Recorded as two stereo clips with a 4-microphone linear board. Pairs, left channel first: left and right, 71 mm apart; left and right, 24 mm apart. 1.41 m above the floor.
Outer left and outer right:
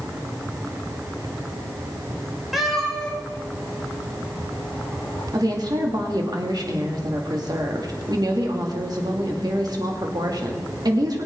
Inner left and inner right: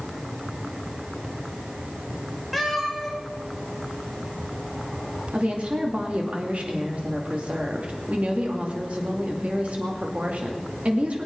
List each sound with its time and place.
2.5 s a cat meowing: 5° right (ahead or behind), 2.5 m; by 5.2 s 55° left (ahead or behind), 4 m
5.3 s a woman speaking: 70° right (ahead or behind), 2 m